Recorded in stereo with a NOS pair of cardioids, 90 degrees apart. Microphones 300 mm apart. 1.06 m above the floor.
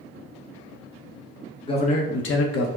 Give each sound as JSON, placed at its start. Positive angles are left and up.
{"t": 1.6, "sound": "a man speaking", "azimuth_deg": 15, "distance_m": 0.7}